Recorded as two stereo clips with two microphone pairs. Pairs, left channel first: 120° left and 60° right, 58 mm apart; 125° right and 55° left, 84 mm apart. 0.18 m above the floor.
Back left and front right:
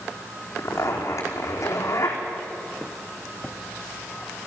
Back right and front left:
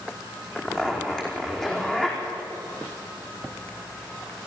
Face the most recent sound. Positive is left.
turn(degrees=155)